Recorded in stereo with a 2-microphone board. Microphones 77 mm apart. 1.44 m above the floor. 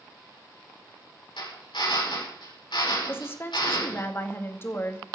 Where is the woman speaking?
30° left (ahead or behind), 2 m.